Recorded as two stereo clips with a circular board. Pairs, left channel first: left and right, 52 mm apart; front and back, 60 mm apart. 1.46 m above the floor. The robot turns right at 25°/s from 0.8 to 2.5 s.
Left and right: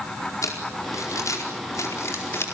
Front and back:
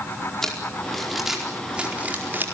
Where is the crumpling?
85° left, 4.5 m; by 2.5 s 125° left, 4.5 m.